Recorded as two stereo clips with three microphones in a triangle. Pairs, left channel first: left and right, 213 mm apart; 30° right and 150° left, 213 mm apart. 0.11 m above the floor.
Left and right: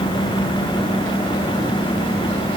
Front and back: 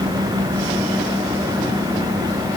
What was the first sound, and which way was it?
Only background noise.